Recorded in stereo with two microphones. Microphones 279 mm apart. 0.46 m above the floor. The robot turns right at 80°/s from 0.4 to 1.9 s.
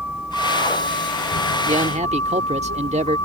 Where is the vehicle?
175° right; by 3.3 s 55° right.